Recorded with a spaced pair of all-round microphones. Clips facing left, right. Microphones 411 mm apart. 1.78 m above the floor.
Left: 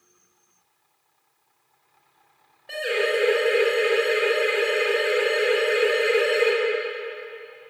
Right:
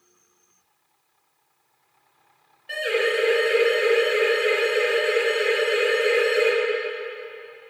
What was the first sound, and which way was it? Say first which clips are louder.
A siren: right 1 dB; 60° left (ahead or behind).